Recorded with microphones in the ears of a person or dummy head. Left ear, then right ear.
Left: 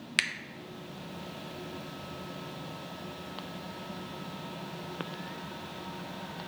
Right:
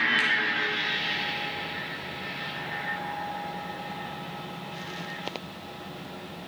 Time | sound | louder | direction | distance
0.2 | a finger snap | right 3 dB | 45° left (ahead or behind) | 0.6 m